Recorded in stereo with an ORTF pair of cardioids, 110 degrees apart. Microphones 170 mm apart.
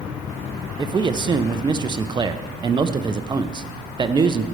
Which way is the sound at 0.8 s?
25° right.